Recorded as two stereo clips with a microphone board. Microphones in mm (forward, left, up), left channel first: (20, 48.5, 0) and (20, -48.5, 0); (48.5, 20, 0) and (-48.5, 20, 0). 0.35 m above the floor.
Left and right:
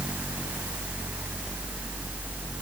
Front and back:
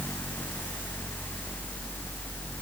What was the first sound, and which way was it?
Only background noise.